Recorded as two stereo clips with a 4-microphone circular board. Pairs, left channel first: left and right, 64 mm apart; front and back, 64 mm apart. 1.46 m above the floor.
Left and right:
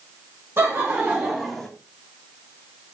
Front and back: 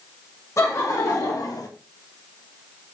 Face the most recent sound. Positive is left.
turn(degrees=20)